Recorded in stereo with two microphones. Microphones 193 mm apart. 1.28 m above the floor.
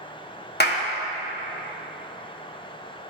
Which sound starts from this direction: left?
A clap, at 0.6 s.